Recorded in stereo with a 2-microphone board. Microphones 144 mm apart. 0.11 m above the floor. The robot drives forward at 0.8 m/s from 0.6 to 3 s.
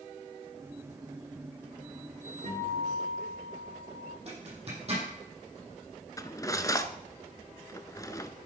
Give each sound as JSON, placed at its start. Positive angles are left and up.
{"t": 2.4, "sound": "a guitar", "side_deg": -65, "distance_m": 5.5}
{"t": 4.3, "sound": "a zipper", "side_deg": -45, "distance_m": 5.0}
{"t": 6.2, "sound": "cutlery clinking", "side_deg": 25, "distance_m": 0.7}